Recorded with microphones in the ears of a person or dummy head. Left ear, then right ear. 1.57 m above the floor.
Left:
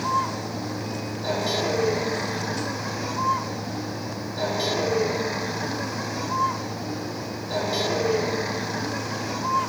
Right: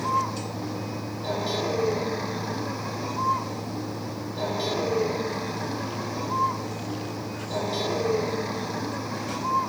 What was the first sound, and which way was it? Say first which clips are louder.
A vehicle: left 1 dB; 15° left (ahead or behind).